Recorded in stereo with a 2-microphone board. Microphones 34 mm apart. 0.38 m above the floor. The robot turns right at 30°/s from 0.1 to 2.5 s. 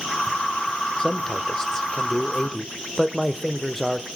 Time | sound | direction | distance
1.0 | a man speaking | 125° left | 0.9 m